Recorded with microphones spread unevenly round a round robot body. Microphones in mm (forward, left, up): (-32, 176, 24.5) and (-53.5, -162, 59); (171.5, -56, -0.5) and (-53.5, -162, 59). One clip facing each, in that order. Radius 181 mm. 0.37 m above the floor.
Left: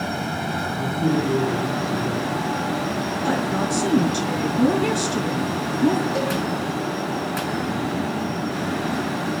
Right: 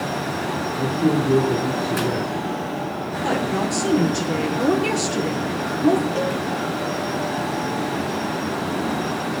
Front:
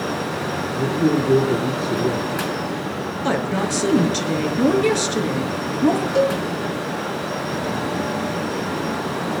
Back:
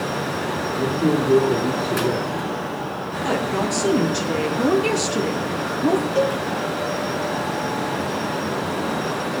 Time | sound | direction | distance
0.8 | a man speaking | 25° right | 5.5 m
3.2 | a woman speaking | 20° left | 4.5 m
6.2 | a cowbell | 40° left | 5 m